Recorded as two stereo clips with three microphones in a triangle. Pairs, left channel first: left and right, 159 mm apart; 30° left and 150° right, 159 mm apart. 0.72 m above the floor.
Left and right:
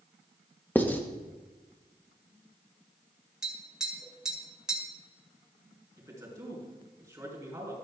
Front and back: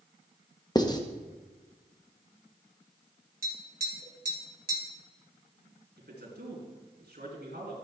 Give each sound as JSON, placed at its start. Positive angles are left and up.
{"t": 0.8, "sound": "writing", "azimuth_deg": 25, "distance_m": 0.7}
{"t": 3.4, "sound": "tapping", "azimuth_deg": -175, "distance_m": 1.9}
{"t": 6.0, "sound": "a man speaking", "azimuth_deg": -160, "distance_m": 4.0}